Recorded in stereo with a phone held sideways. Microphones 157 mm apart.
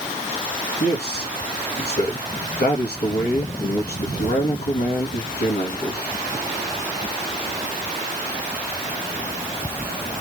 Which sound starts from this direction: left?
A man speaking, at 0.8 s.